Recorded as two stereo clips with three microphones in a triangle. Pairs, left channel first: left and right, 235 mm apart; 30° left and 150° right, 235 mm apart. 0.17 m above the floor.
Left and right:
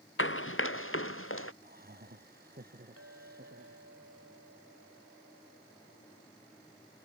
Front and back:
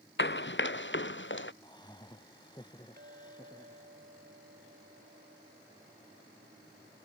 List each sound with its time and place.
0.2 s running footsteps: 65° left
1.6 s laughter: 40° right
3.0 s a clink: 105° right